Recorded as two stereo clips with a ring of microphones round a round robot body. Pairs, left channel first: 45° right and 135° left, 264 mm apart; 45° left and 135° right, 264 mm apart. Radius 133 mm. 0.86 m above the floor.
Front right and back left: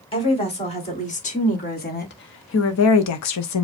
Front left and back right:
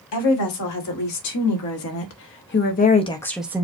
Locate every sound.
0.1 s a woman speaking: 25° left, 2 m; by 3.6 s 60° right, 0.6 m